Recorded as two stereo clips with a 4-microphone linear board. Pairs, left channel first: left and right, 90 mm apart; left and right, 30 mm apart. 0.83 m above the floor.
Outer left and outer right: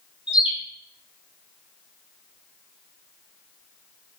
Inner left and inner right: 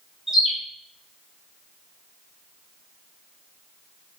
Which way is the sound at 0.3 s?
15° right (ahead or behind).